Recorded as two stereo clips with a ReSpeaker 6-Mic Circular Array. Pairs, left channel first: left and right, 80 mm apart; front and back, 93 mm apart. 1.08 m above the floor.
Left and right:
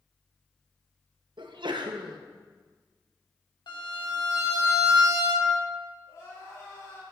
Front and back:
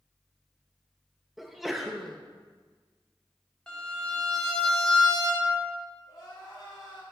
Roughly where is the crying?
Ahead left.